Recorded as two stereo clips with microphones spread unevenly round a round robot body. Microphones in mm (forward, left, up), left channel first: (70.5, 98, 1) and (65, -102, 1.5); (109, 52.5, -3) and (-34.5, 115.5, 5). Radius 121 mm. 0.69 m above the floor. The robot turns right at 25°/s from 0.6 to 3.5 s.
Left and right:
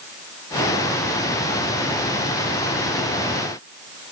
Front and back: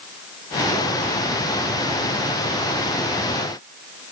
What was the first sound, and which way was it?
Only background noise.